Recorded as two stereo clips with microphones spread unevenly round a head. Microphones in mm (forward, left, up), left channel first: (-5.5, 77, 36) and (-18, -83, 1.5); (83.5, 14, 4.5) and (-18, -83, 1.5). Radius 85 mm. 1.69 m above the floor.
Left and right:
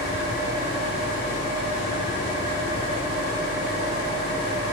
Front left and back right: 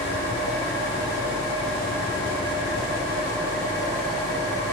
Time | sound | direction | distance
0.0 | an engine running | 115° left | 4.5 m